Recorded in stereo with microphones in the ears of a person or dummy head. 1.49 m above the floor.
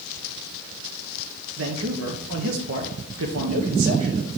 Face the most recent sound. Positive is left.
turn(degrees=-70)  # may be behind; listen again after turning